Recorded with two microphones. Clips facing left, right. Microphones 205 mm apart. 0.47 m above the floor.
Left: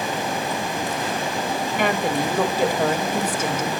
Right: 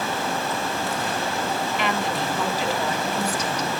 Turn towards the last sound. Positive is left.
turn(degrees=55)  # may be behind; listen again after turning